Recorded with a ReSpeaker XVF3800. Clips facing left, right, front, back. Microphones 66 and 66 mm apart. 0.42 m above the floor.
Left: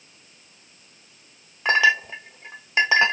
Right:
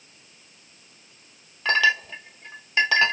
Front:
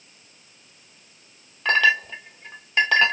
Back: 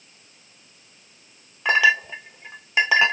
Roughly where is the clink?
Behind left.